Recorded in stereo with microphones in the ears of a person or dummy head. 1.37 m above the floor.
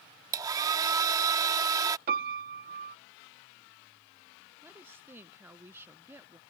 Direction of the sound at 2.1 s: 50° right (ahead or behind).